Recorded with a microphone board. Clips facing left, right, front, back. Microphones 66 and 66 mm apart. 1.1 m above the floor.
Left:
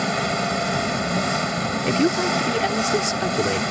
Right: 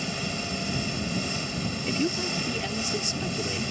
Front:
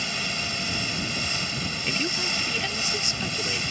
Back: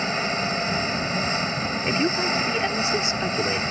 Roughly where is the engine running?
Behind left.